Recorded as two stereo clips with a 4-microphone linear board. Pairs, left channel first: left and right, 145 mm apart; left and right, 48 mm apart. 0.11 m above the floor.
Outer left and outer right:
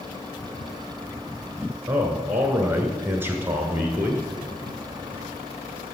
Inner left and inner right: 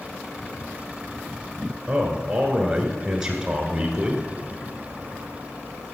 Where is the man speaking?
15° right (ahead or behind), 1.2 m.